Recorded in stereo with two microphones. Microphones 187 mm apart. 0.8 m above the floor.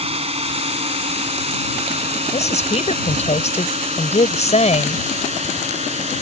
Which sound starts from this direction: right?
A drone, at 0.0 s.